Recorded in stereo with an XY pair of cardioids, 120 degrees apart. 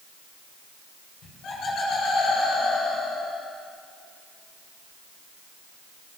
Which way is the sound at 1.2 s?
60° left.